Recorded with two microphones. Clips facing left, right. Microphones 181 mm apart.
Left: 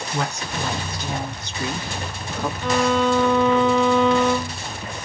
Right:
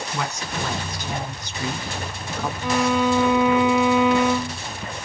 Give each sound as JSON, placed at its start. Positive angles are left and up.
{"t": 0.1, "sound": "a woman speaking", "side_deg": 30, "distance_m": 1.2}
{"t": 2.6, "sound": "a violin", "side_deg": -10, "distance_m": 0.6}